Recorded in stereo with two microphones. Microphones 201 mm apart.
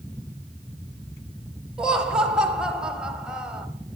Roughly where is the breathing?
I don't hear breathing.